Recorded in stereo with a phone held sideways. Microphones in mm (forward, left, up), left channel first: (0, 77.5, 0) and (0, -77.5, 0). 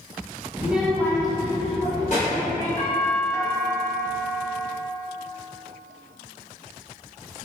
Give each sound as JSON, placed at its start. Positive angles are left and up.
{"t": 0.6, "sound": "a child speaking", "side_deg": -15, "distance_m": 0.7}
{"t": 2.8, "sound": "a doorbell", "side_deg": 20, "distance_m": 1.1}